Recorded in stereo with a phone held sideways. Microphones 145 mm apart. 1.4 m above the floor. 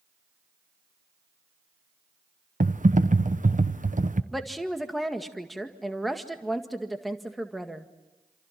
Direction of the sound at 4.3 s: Centre (ahead or behind).